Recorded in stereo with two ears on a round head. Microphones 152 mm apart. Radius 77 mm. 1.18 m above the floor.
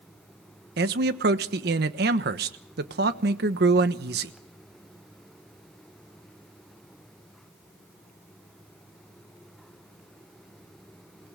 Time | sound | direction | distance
0.8 | a man speaking | 65° right (ahead or behind) | 1.2 m